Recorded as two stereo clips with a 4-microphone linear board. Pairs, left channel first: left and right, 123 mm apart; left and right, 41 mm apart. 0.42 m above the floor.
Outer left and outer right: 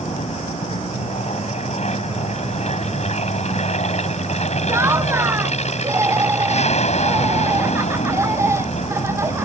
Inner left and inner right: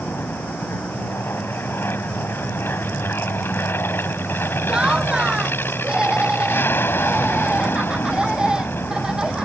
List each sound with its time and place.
0.0 s an aircraft: 60° left (ahead or behind)
4.7 s laughter: 20° right (ahead or behind)